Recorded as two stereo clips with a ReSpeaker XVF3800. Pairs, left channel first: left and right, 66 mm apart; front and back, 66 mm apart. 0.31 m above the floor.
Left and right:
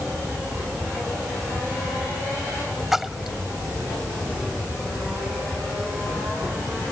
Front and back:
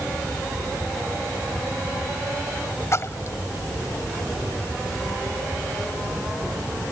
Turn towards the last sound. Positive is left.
turn(degrees=-5)